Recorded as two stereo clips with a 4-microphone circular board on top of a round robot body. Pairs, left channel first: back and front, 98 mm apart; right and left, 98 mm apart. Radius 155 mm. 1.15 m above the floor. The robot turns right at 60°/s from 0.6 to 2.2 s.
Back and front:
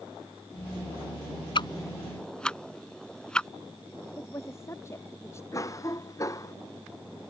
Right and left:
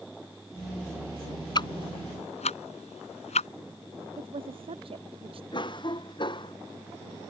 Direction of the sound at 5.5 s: 125° right.